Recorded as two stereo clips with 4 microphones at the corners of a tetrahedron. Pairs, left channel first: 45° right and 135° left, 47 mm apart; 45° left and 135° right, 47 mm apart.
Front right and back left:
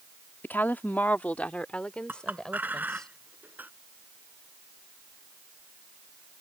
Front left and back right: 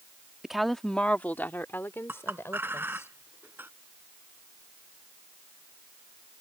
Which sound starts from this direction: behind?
A clink, at 2.1 s.